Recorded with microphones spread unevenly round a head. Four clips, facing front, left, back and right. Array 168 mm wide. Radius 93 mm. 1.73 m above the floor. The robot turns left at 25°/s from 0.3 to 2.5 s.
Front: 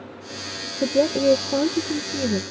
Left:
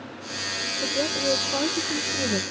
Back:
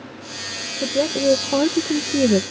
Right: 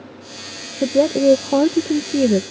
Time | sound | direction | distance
0.8 | a woman speaking | 75° right | ?